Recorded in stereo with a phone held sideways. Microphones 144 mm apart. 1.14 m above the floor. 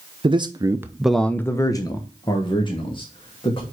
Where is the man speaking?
35° right (ahead or behind), 0.8 m; by 3.6 s 40° left (ahead or behind), 2.5 m.